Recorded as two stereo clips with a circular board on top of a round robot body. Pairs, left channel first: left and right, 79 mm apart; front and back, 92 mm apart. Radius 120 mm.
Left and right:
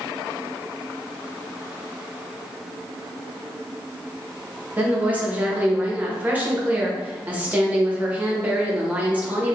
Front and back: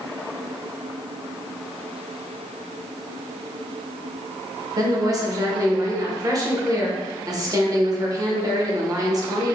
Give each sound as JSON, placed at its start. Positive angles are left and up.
{"t": 4.8, "sound": "a woman speaking", "azimuth_deg": -155, "distance_m": 1.1}